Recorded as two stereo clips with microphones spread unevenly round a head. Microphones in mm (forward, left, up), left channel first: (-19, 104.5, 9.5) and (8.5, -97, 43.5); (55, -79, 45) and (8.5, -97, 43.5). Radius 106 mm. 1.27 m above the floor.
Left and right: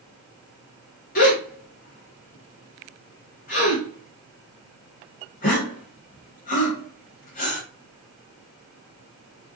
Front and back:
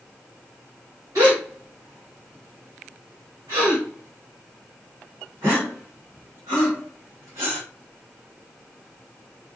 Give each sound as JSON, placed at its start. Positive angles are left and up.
{"t": 1.1, "sound": "a gasp", "azimuth_deg": 150, "distance_m": 1.0}